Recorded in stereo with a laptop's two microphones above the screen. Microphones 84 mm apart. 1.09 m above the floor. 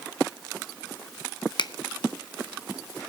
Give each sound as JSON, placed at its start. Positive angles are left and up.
{"t": 1.6, "sound": "a finger snap", "side_deg": 65, "distance_m": 0.5}